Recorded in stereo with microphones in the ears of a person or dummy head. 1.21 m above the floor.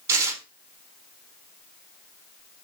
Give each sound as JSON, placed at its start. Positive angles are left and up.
{"t": 0.1, "sound": "tearing paper", "side_deg": -15, "distance_m": 0.7}